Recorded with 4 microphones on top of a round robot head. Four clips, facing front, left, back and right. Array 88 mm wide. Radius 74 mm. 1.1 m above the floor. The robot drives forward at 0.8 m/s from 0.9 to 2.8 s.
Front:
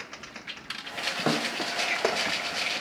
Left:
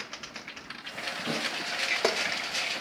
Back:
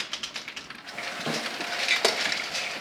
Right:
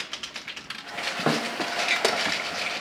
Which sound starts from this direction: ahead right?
A snare drum, at 1.3 s.